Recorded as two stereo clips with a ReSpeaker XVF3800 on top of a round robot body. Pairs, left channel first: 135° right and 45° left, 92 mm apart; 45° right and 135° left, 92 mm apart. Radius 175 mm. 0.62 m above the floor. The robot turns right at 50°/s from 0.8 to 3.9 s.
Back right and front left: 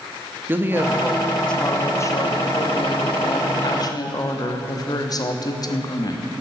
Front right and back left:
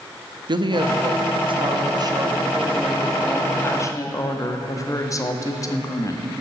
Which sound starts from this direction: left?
A woman speaking, at 0.5 s.